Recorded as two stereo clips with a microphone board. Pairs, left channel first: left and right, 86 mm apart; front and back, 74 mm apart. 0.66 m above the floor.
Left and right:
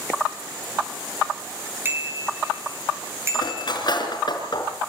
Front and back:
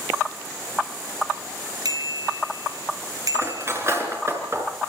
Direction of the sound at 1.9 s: 155° right.